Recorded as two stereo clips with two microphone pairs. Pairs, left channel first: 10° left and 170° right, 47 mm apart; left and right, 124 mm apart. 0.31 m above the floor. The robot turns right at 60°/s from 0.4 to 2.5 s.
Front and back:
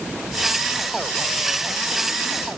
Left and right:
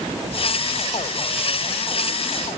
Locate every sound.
Only background noise.